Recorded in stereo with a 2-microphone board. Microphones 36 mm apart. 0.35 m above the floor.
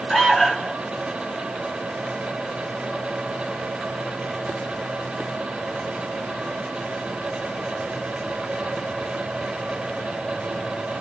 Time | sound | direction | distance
0.1 | an alarm | 10° left (ahead or behind) | 1.4 m